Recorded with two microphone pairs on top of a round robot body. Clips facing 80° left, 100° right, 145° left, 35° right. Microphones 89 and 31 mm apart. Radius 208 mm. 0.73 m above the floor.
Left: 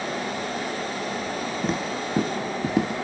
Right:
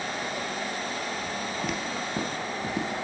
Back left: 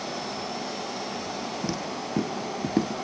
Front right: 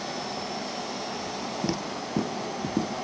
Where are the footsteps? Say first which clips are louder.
Left 4 dB, even; 15° left, 0.9 m; by 3.0 s 120° left, 0.7 m.